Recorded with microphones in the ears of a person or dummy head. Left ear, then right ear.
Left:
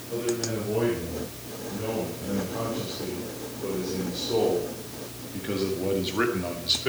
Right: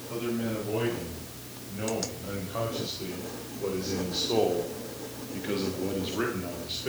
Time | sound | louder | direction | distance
0.1 | a man speaking | left 4 dB | 85° right | 7.5 m